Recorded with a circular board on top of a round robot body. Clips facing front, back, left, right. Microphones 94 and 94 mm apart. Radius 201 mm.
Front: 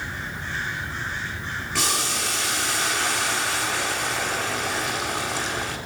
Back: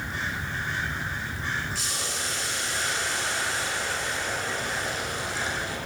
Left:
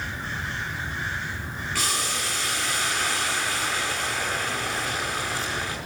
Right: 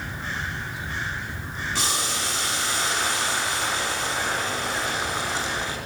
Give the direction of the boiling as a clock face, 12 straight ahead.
1 o'clock.